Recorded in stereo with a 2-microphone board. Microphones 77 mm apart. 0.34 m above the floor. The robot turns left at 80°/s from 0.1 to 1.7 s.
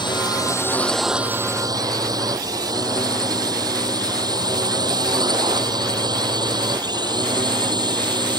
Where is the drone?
75° left (ahead or behind); by 8.4 s 70° right (ahead or behind).